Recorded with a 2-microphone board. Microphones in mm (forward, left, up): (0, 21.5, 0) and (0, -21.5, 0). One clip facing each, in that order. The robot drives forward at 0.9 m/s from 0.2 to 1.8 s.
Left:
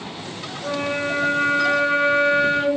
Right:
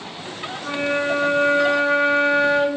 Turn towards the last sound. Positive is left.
turn(degrees=-40)  # may be behind; listen again after turning